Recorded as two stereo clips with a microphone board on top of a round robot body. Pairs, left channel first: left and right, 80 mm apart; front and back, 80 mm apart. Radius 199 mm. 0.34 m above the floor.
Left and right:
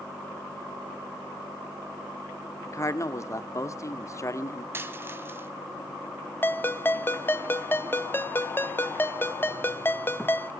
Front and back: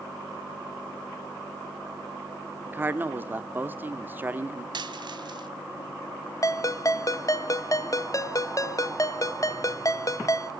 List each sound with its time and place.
2.6 s a man speaking: 120° left, 1.7 m
4.7 s a dropped coin: 150° right, 1.5 m
6.4 s a ringtone: 35° left, 1.3 m